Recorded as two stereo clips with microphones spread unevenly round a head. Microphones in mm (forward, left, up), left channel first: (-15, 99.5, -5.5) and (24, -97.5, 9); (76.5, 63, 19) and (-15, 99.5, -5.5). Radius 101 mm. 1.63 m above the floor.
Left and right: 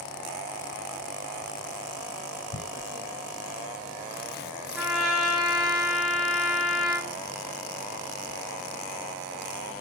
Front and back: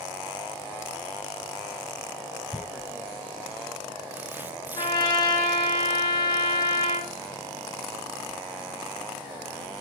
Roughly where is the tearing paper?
Left.